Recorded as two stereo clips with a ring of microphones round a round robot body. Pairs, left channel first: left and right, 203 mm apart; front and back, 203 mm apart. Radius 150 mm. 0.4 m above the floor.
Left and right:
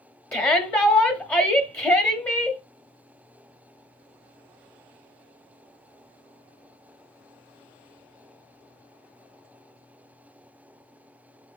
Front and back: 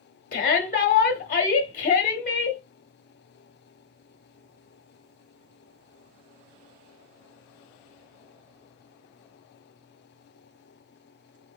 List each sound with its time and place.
0.3 s a shout: 15° left, 0.9 m